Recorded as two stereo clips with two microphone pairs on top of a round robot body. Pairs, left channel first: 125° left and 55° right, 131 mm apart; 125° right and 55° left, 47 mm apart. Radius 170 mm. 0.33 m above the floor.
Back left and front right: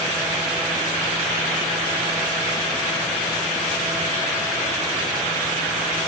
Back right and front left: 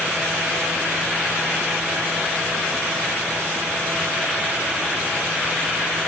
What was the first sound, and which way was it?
Only background noise.